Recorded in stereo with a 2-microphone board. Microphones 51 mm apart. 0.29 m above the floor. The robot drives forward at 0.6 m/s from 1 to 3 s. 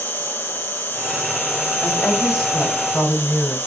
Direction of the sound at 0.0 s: 45° left (ahead or behind).